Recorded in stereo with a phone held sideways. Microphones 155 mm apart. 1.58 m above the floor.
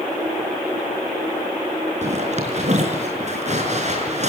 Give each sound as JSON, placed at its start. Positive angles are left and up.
{"t": 2.0, "sound": "a zipper", "side_deg": -50, "distance_m": 5.0}